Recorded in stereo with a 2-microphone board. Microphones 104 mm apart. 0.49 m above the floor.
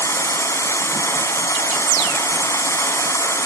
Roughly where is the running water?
Left.